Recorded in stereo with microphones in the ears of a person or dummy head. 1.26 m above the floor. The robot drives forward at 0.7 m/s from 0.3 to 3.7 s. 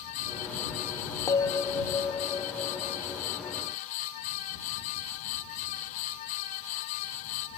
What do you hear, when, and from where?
1.3 s a bell: 15° left (ahead or behind); by 3.3 s 5° left (ahead or behind)